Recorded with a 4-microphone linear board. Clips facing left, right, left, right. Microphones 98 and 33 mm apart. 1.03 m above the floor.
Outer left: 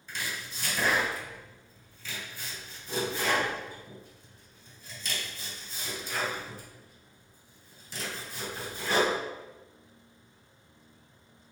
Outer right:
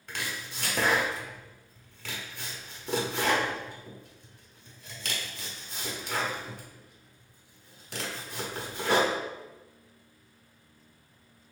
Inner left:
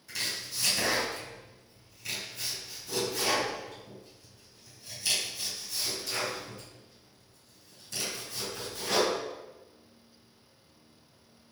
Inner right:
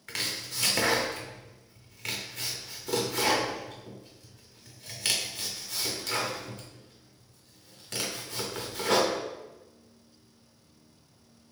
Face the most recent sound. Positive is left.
turn(degrees=-65)  # may be behind; listen again after turning